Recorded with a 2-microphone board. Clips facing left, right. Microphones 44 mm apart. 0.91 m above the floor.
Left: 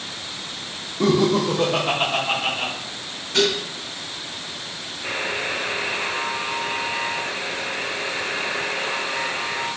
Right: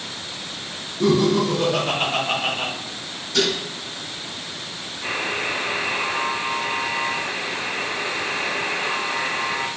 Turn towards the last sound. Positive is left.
turn(degrees=-65)  # may be behind; listen again after turning